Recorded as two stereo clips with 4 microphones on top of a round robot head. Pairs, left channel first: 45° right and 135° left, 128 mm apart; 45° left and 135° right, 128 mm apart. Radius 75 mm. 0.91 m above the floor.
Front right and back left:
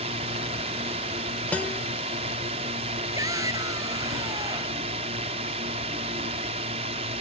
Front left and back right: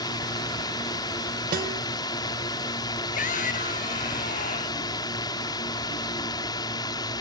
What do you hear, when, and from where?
0.0 s a drone: 100° left
1.5 s a guitar: 125° right
3.1 s a shout: 70° left